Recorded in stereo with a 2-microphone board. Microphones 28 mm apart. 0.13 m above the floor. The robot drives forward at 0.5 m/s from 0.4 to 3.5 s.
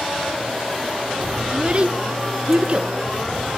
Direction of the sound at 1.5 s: 35° right (ahead or behind).